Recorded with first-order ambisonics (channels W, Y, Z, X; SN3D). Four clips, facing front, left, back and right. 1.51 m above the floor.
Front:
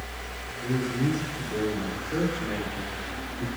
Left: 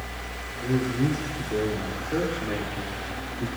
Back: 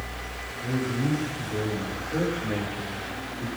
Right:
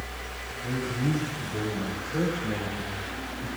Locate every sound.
0.6 s a man speaking: 80° left, 5 m; by 3.5 s 70° left, 3.5 m